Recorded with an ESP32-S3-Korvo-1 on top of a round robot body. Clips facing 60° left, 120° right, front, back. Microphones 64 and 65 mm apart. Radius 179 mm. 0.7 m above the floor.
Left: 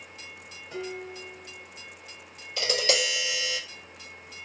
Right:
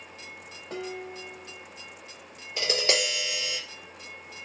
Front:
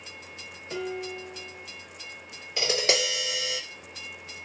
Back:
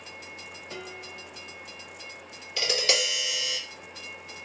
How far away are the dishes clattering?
About 0.8 m.